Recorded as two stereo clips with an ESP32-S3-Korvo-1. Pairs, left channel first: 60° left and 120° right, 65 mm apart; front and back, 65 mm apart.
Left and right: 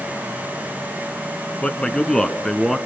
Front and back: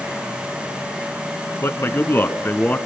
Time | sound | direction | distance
1.6 | a man speaking | 5° right | 1.8 m